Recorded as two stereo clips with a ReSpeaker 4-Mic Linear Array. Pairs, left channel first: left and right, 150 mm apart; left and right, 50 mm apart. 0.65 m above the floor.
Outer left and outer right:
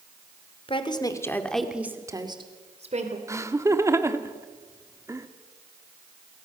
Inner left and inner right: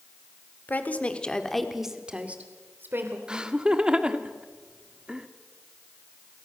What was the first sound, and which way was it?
A woman speaking, 35° left (ahead or behind).